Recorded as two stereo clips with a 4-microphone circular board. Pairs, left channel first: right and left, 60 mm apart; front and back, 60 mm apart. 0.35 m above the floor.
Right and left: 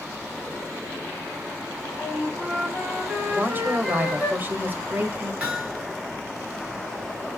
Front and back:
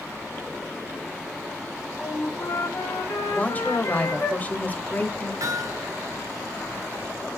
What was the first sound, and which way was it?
A flute, 5° left.